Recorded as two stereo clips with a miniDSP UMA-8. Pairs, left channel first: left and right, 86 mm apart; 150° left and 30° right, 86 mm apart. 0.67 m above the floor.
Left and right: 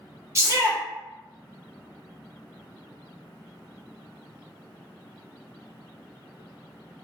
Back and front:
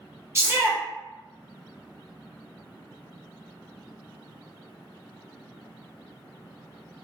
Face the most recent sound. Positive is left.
turn(degrees=-65)